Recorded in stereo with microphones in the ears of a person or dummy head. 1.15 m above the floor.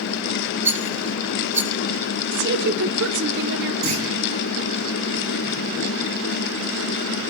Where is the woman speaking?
65° right (ahead or behind), 3 m.